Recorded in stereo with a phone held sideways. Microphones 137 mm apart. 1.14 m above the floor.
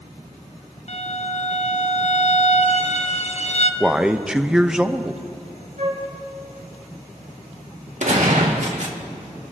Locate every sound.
0.9 s a violin: 50° left (ahead or behind), 0.8 m
3.8 s a man speaking: 5° right (ahead or behind), 0.7 m
5.8 s a flute: 55° right (ahead or behind), 3.5 m
8.0 s a gunshot: 60° right (ahead or behind), 1.9 m